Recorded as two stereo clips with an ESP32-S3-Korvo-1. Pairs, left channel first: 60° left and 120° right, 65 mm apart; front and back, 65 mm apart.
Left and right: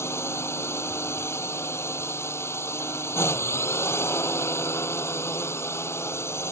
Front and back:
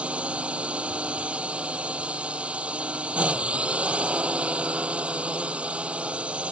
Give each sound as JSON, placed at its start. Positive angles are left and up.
{"t": 0.0, "sound": "a drone", "azimuth_deg": 110}